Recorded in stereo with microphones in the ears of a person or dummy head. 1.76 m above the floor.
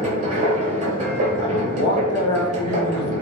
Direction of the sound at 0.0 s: 35° right (ahead or behind).